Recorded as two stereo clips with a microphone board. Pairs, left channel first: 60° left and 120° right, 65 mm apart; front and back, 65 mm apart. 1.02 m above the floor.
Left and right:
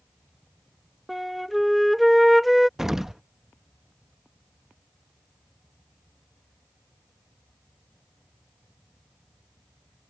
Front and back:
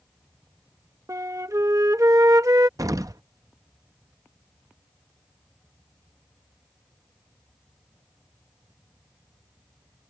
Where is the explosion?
155° left.